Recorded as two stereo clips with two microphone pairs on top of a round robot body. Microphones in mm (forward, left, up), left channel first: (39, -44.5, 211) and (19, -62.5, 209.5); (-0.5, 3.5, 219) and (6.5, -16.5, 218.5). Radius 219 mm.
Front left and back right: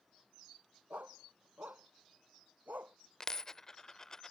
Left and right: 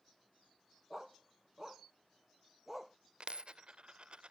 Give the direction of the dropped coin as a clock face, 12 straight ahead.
1 o'clock.